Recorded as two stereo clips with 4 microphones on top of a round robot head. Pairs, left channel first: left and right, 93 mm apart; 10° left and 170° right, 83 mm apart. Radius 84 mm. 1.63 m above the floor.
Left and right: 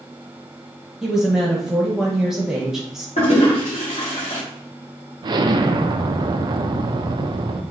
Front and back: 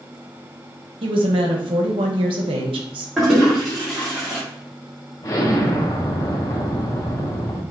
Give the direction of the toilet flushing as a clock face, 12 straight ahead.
8 o'clock.